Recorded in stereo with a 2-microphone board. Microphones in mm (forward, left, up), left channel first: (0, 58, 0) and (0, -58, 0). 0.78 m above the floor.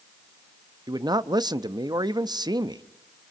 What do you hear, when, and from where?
0.9 s a man speaking: 35° right (ahead or behind), 0.7 m